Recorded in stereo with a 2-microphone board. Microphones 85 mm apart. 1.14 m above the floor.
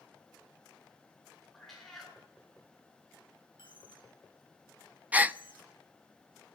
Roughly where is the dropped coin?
Left.